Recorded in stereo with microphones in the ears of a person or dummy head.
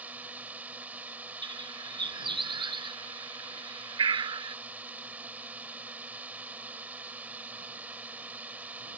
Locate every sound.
0.0 s a drone: 10° right (ahead or behind)
1.4 s a bird: 25° right (ahead or behind)